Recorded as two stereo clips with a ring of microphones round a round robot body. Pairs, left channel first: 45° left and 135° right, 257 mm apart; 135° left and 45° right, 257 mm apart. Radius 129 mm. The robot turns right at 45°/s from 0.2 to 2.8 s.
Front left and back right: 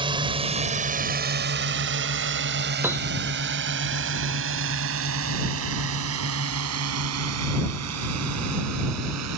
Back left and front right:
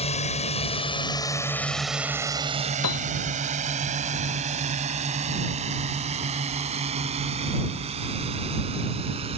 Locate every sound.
0.0 s a drone: 175° left; by 9.4 s 115° right
2.8 s a piano: 145° left